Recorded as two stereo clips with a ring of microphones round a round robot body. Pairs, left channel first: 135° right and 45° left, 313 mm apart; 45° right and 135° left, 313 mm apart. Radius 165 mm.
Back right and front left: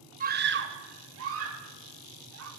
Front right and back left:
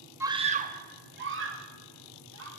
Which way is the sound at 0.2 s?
65° left.